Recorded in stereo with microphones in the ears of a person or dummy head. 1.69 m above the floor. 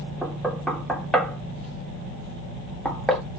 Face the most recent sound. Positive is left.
turn(degrees=5)  # may be behind; listen again after turning